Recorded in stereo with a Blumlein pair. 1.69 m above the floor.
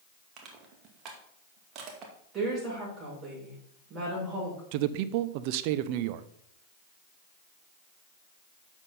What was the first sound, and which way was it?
Crushing, 35° right.